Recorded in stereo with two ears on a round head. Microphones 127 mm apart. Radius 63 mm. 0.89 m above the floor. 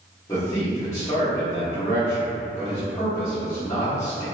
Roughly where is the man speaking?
Centre.